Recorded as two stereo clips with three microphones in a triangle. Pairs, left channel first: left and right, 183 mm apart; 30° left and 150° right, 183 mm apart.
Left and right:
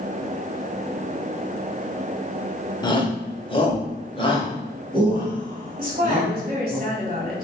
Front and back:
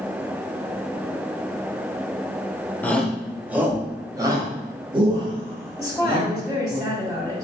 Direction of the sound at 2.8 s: 95° left.